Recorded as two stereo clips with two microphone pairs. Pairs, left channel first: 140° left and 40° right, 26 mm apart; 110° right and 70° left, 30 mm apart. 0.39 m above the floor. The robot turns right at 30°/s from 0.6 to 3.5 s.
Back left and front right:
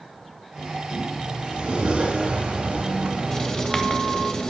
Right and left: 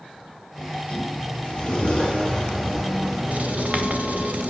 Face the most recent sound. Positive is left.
turn(degrees=85)